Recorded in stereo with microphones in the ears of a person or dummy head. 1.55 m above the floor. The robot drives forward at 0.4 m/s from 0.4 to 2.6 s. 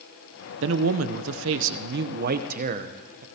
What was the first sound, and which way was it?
A man speaking, 75° right (ahead or behind).